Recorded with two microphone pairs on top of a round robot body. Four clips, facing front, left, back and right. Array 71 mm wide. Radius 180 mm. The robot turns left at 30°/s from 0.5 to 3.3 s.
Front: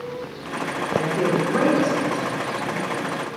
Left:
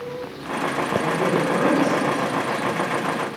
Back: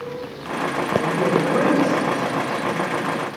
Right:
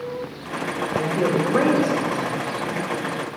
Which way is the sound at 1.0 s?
55° right.